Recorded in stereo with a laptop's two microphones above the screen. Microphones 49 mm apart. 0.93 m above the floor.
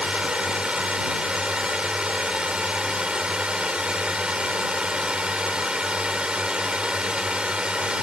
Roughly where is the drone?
Right.